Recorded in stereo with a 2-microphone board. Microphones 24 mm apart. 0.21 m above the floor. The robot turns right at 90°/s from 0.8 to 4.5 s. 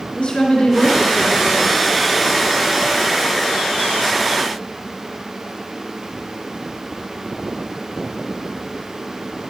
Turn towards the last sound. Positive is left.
turn(degrees=20)